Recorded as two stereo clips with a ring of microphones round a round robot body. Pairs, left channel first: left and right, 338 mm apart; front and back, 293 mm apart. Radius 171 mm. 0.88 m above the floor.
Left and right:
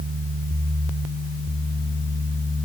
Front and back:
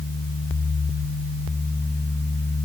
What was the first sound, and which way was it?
Only background noise.